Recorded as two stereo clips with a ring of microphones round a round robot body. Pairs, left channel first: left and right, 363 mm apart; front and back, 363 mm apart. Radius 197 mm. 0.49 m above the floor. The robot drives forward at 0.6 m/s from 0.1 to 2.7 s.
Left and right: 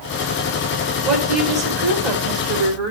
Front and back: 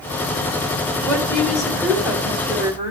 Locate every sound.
1.1 s a woman speaking: 80° right, 2.5 m; by 2.9 s 110° right, 2.5 m